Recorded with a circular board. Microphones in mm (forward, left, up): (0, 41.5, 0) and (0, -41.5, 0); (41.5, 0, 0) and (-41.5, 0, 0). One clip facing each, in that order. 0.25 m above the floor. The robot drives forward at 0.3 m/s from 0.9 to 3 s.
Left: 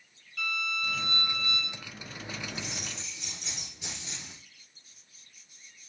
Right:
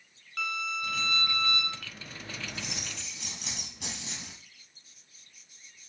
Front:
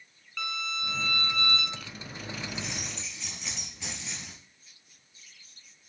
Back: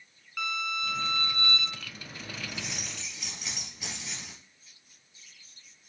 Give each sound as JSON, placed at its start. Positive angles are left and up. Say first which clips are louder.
{"t": 0.4, "sound": "a violin", "louder": "even, back 2 dB", "azimuth_deg": -100, "distance_m": 1.3}
{"t": 2.5, "sound": "keys jangling", "louder": "left 1 dB, front 2 dB", "azimuth_deg": -95, "distance_m": 4.5}